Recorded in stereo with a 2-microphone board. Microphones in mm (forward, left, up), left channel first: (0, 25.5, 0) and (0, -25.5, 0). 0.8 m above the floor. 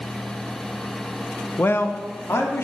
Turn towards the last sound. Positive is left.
turn(degrees=55)  # may be behind; listen again after turning